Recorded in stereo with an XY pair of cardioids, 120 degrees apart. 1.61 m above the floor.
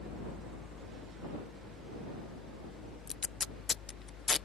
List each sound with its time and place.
0.0 s a fan: 55° left
3.1 s tape being pulled: 35° left